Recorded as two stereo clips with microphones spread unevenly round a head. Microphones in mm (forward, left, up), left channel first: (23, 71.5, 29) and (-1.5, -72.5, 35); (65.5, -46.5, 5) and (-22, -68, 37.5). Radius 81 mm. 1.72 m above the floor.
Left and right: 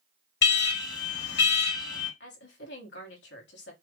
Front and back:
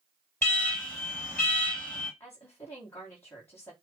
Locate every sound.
0.4 s an alarm: 100° left, 3 m
2.2 s a woman speaking: 90° left, 2.5 m